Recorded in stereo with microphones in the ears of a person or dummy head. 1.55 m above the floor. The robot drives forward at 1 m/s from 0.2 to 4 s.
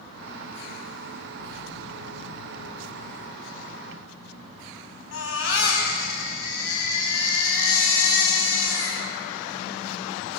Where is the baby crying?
75° left (ahead or behind), 5.5 m.